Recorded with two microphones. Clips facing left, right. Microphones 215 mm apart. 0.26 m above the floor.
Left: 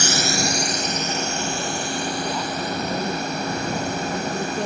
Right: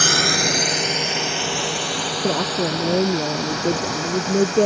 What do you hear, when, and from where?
0.0 s a drone: 65° right (ahead or behind); by 4.7 s 75° right (ahead or behind)
2.2 s a woman speaking: 65° right (ahead or behind)